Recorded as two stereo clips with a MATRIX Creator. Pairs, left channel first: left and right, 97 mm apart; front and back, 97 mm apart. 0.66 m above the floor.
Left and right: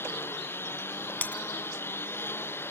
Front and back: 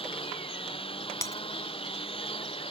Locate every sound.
0.0 s a lawn mower: 25° left
1.2 s breaking glass: 30° left